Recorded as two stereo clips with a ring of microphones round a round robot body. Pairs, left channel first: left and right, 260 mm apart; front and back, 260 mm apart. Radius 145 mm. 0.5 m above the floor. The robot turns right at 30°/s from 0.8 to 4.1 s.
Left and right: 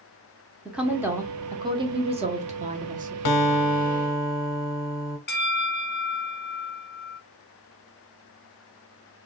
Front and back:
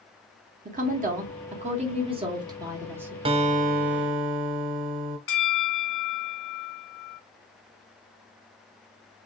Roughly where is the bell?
Ahead left.